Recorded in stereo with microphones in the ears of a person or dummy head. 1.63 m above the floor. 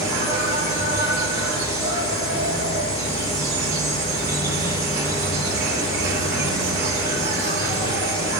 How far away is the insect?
About 2.5 m.